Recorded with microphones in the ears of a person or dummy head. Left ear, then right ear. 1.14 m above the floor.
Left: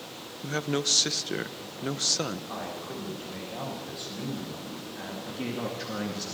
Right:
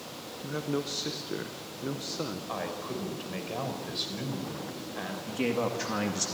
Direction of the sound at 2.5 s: 30° right (ahead or behind).